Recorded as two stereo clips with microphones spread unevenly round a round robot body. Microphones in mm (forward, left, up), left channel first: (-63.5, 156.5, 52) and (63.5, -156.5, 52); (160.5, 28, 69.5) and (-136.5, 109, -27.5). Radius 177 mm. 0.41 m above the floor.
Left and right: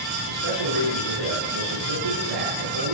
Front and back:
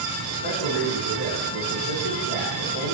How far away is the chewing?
No chewing in this recording.